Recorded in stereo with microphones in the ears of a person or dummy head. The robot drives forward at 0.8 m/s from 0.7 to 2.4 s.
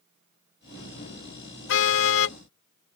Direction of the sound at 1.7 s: 75° left (ahead or behind).